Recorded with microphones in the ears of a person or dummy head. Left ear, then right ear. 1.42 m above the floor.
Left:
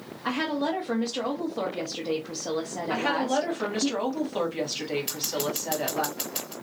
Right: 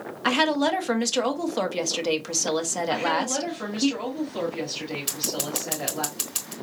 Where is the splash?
No splash in this recording.